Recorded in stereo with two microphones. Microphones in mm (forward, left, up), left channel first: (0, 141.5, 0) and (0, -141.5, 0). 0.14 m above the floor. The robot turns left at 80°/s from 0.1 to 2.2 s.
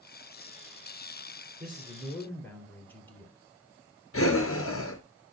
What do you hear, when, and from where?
1.6 s a man speaking: 140° right, 2.5 m; by 3.3 s 175° left, 2.5 m
4.1 s breathing: 50° left (ahead or behind), 1.0 m